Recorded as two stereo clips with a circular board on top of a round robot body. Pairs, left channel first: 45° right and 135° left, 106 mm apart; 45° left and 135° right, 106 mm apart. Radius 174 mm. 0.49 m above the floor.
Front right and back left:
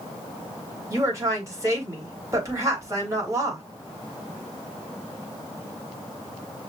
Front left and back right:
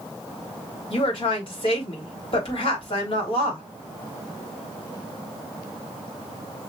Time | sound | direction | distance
0.9 | a woman speaking | 75° left | 3 m